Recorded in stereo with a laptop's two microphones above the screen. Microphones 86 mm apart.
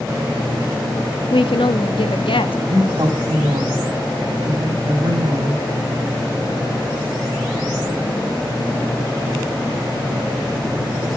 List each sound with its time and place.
1.3 s a woman speaking: 80° left, 1.4 m
2.7 s a woman speaking: 55° right (ahead or behind), 6 m